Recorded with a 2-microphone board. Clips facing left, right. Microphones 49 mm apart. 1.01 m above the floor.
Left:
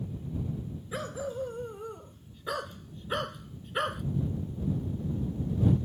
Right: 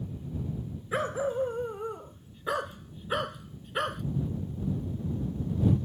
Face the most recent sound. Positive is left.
turn(degrees=5)  # may be behind; listen again after turning